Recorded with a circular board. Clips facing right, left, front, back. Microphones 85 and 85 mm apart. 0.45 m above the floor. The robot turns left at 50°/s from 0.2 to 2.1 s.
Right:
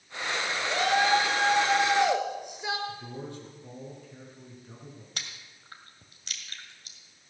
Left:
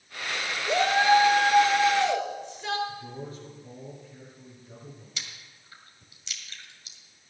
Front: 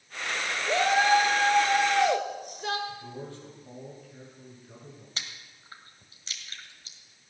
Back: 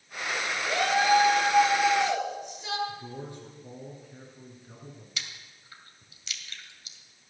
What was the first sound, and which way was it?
A shout, 55° left.